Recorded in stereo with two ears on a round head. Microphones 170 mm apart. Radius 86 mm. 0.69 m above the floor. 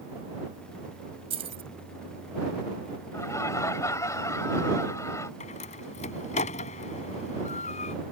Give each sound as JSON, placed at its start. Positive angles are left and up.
{"t": 1.3, "sound": "keys jangling", "side_deg": -35}
{"t": 3.1, "sound": "laughter", "side_deg": 15}
{"t": 5.4, "sound": "a door slam", "side_deg": 40}